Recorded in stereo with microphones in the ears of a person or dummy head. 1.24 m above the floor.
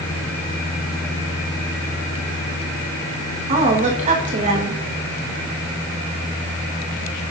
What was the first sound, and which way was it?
A woman speaking, 35° right (ahead or behind).